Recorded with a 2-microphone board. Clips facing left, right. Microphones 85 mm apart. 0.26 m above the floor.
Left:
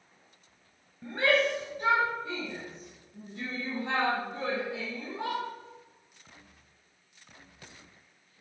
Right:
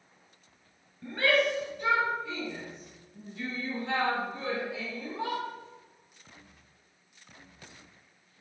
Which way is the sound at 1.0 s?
20° left (ahead or behind).